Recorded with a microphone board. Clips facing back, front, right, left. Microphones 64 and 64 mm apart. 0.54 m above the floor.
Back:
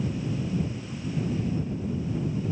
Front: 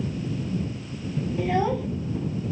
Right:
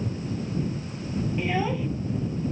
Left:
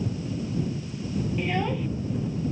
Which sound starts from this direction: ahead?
A child speaking, at 1.4 s.